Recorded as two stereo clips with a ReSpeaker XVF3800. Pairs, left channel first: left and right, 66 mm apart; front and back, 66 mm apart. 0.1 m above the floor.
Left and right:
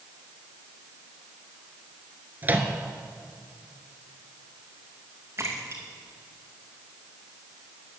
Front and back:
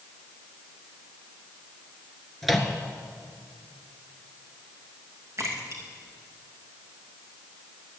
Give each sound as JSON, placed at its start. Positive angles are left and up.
{"t": 2.4, "sound": "a microwave", "azimuth_deg": -85, "distance_m": 1.2}
{"t": 5.4, "sound": "a splash", "azimuth_deg": -140, "distance_m": 2.0}